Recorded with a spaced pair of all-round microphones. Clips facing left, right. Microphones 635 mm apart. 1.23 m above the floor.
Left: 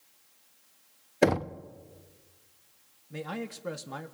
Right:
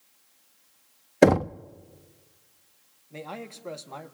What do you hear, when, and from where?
1.2 s knocking: 70° right (ahead or behind), 0.5 m
3.1 s a man speaking: 40° left (ahead or behind), 1.3 m